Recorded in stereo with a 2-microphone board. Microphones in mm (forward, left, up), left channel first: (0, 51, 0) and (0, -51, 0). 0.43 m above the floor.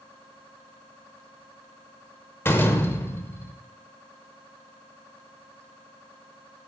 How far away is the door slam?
About 0.8 m.